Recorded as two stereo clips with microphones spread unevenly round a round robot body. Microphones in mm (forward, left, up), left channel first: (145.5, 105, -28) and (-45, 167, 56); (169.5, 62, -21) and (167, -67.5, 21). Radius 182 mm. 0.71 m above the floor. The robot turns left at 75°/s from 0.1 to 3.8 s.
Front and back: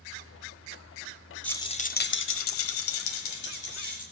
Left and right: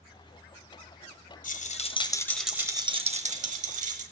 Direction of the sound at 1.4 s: 70° left.